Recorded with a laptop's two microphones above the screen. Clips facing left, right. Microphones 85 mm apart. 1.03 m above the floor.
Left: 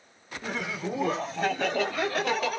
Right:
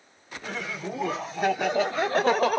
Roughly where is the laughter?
Centre.